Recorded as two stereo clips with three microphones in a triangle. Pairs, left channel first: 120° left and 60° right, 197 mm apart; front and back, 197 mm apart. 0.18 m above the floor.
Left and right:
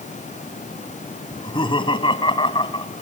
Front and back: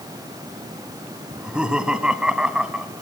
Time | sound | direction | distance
1.3 | laughter | 100° left | 1.4 m